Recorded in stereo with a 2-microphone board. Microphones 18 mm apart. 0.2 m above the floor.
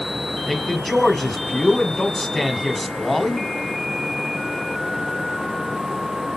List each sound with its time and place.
0.5 s a man speaking: 5° left (ahead or behind), 1.4 m